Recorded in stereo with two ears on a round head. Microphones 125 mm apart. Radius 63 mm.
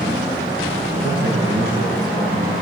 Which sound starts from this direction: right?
A man speaking, at 1.0 s.